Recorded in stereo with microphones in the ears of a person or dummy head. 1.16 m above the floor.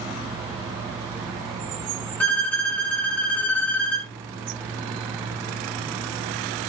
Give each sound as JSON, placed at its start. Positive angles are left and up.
{"t": 2.2, "sound": "a violin", "side_deg": 5, "distance_m": 0.7}